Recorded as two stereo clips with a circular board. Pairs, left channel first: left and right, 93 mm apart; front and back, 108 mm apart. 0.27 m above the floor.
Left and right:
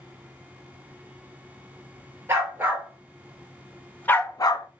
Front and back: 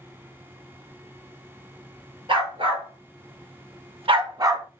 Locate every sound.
2.3 s a dog barking: 150° right, 1.4 m; by 4.7 s 115° left, 0.6 m